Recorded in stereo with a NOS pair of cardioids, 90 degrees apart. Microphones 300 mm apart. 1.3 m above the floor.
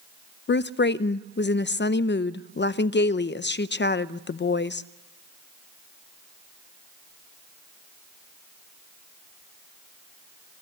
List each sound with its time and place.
0.5 s a woman speaking: 40° left, 0.7 m